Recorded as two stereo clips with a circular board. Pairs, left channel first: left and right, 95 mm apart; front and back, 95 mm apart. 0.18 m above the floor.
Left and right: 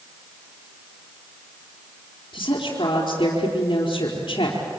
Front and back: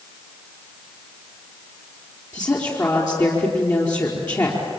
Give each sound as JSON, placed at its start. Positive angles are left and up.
{"t": 2.3, "sound": "a woman speaking", "azimuth_deg": 55, "distance_m": 4.0}